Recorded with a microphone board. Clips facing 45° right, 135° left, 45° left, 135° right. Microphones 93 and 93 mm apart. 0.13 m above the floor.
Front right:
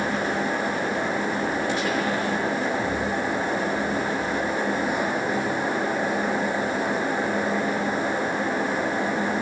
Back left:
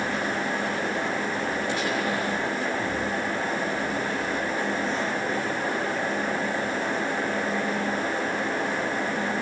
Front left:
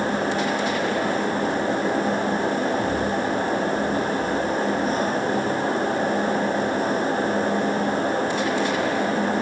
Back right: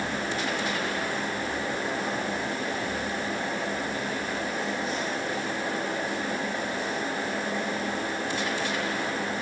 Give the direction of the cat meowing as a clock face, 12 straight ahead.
No cat meowing in this recording.